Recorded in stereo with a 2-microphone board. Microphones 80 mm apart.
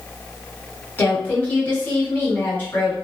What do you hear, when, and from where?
1.0 s a woman speaking: 20° left (ahead or behind), 1.2 m